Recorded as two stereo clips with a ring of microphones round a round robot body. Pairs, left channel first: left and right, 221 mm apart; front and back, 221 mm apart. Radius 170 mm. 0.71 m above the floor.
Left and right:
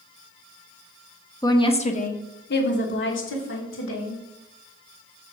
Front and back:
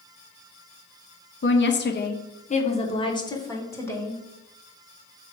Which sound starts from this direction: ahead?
A woman speaking, at 1.4 s.